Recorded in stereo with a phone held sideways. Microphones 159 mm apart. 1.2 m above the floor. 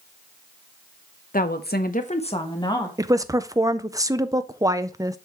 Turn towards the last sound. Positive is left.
turn(degrees=-20)  # may be behind; listen again after turning